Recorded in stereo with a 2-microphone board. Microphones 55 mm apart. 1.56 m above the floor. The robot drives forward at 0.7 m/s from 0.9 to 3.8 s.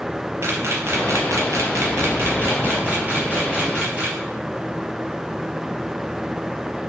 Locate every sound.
0.4 s a camera shutter: 55° right (ahead or behind), 0.8 m; by 4.2 s 20° right (ahead or behind), 1.8 m